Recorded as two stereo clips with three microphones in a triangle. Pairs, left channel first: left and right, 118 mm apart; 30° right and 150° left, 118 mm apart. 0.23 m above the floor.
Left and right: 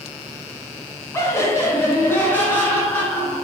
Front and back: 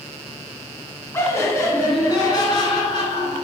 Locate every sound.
1.1 s laughter: 30° left, 1.3 m; by 3.4 s 15° left, 2.5 m